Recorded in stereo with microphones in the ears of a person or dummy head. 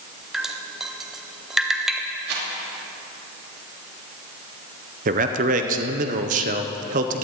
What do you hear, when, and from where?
0.3 s dripping: 5° right (ahead or behind), 0.6 m
2.3 s a rattle: 55° right (ahead or behind), 2.5 m
5.0 s a man speaking: 40° right (ahead or behind), 0.7 m